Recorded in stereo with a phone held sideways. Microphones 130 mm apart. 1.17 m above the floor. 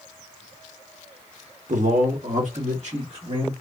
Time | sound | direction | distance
1.7 | a man speaking | 65° right (ahead or behind) | 0.8 m